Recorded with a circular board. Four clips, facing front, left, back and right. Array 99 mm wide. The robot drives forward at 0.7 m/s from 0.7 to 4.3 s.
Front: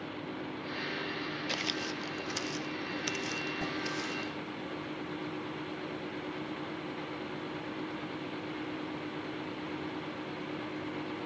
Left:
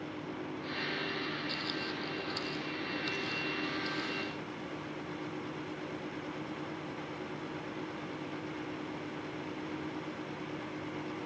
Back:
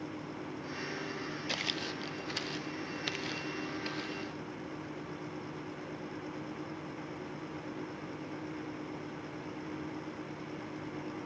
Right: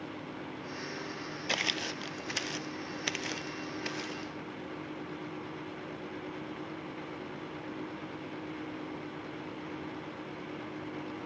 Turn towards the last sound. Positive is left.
turn(degrees=-100)